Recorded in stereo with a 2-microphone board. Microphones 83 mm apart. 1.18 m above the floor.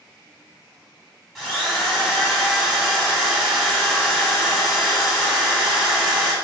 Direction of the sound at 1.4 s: Centre (ahead or behind).